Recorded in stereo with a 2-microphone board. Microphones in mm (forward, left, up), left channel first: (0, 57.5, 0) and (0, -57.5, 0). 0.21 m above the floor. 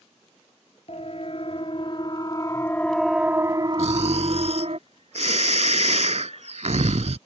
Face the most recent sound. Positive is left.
turn(degrees=-75)  # may be behind; listen again after turning